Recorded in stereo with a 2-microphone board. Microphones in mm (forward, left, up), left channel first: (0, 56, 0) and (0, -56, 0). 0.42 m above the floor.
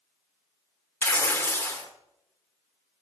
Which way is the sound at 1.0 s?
20° left (ahead or behind).